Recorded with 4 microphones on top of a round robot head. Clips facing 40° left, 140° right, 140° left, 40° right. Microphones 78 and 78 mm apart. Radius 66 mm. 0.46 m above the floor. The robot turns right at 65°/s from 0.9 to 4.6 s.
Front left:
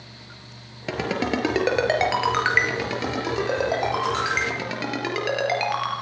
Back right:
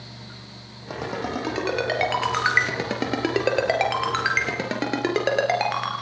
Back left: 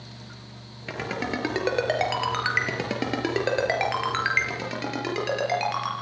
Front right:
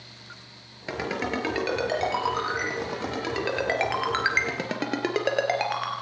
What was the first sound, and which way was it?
A ringtone, 35° left.